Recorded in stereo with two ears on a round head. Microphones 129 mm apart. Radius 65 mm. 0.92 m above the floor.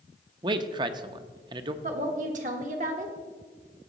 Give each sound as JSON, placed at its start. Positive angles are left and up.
{"t": 0.4, "sound": "a man speaking", "side_deg": -30, "distance_m": 0.6}
{"t": 1.8, "sound": "a woman speaking", "side_deg": -55, "distance_m": 1.4}